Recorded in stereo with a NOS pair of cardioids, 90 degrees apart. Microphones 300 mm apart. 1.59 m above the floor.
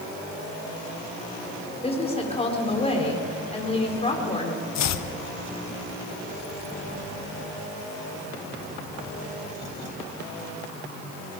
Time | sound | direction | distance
1.8 | a woman speaking | 20° left | 5.5 m
4.8 | chopping | 65° left | 1.1 m